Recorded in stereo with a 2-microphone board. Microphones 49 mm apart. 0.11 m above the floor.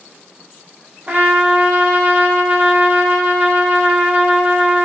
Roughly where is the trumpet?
Right.